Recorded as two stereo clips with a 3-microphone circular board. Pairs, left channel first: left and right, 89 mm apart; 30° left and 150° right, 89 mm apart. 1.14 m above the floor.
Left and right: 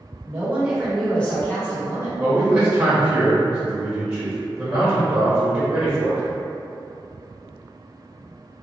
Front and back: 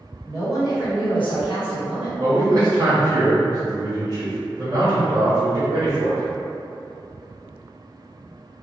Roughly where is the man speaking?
Behind right.